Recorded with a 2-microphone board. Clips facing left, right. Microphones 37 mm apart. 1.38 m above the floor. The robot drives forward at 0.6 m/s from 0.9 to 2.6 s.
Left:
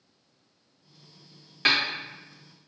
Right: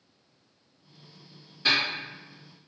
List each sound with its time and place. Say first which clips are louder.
1.6 s a snare drum: left 1 dB; 70° left (ahead or behind), 1.6 m